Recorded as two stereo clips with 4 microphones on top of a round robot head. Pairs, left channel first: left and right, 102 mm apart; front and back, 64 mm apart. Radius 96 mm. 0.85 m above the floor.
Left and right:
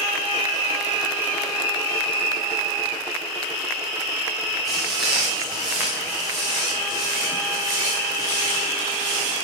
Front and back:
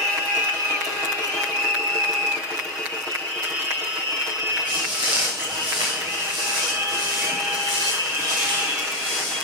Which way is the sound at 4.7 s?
175° right.